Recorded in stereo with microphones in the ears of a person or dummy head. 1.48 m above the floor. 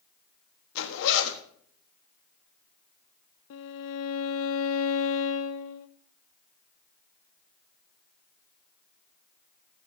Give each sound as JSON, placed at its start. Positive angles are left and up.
{"t": 0.8, "sound": "a zipper", "side_deg": 65, "distance_m": 1.4}
{"t": 3.5, "sound": "a violin", "side_deg": 75, "distance_m": 0.7}